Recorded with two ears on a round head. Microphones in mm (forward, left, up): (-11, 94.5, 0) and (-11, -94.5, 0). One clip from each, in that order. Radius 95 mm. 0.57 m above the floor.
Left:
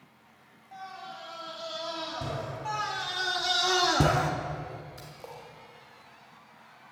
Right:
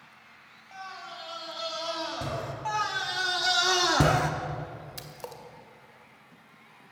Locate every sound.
0.7 s a scream: 30° right (ahead or behind), 3.5 m
2.6 s a scream: 10° right (ahead or behind), 0.8 m
5.0 s a splash: 55° right (ahead or behind), 1.9 m